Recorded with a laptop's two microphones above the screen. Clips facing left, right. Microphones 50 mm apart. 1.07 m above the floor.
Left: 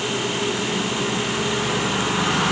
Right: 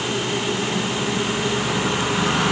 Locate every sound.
Only background noise.